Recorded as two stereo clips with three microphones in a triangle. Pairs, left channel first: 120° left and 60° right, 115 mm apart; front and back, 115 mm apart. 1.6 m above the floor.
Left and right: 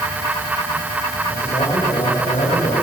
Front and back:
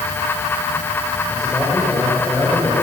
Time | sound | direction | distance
1.3 | a man speaking | 85° left | 6 m